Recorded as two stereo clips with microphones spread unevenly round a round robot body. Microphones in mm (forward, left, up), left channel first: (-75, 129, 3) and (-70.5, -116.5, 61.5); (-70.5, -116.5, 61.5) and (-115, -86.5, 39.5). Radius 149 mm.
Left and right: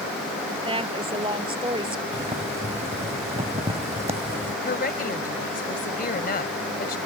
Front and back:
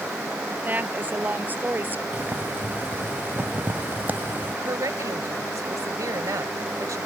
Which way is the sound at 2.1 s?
160° right.